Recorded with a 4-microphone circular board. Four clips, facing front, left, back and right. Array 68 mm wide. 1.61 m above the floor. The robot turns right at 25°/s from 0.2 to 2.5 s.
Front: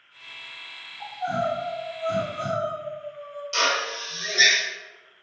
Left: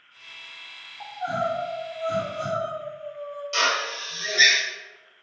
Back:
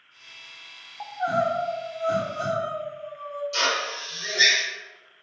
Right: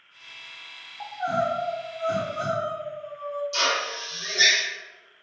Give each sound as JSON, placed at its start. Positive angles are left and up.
{"t": 1.0, "sound": "crying", "azimuth_deg": -165, "distance_m": 1.1}
{"t": 3.5, "sound": "a drill", "azimuth_deg": 60, "distance_m": 1.5}